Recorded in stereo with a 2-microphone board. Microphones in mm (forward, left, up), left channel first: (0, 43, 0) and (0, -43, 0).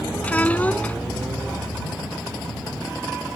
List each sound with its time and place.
0.2 s a child speaking: 20° left (ahead or behind)